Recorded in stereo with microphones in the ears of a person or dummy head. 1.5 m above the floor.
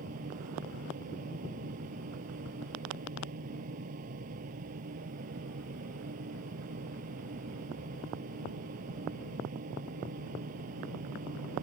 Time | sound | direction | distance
0.0 | a fan | 45° right (ahead or behind) | ?